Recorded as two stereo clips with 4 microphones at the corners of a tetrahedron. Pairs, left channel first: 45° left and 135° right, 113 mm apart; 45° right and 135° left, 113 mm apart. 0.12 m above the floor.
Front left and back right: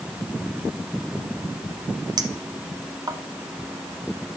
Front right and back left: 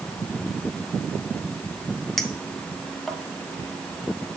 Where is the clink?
130° right, 0.8 m.